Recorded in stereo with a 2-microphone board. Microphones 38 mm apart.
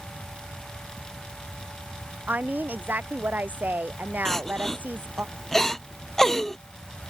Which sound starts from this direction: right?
A woman speaking, at 2.3 s.